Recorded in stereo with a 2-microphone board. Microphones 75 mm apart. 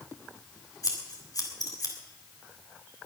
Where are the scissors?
55° left (ahead or behind), 3 m.